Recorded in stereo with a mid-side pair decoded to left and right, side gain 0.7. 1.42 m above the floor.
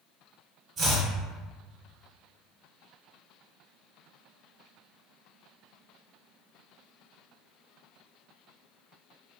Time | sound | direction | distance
0.8 | chopping | 40° right | 1.1 m